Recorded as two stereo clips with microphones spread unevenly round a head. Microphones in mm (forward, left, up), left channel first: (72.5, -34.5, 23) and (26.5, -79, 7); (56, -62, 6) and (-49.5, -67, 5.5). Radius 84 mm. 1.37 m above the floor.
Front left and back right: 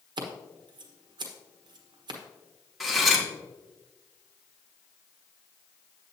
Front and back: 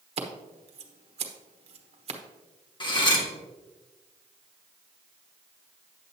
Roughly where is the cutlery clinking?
Ahead right.